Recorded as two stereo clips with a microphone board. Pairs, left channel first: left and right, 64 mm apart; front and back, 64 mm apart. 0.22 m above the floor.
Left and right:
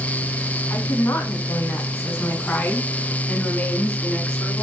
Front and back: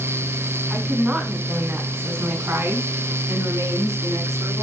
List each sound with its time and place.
0.7 s a woman speaking: 105° left, 1.9 m; by 4.6 s 165° left, 2.5 m